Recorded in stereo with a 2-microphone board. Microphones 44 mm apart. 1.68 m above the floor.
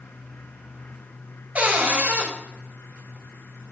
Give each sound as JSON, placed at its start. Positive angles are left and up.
{"t": 1.6, "sound": "a cupboard door", "side_deg": -35, "distance_m": 2.5}